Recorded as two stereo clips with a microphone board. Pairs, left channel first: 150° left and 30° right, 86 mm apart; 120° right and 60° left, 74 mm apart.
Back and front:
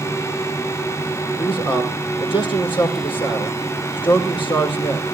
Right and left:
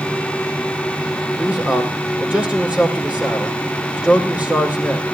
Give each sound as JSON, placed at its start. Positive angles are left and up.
{"t": 1.4, "sound": "a man speaking", "azimuth_deg": 135, "distance_m": 5.5}